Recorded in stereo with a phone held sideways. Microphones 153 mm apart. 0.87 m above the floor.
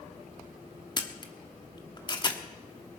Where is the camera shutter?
30° left (ahead or behind), 1.2 m.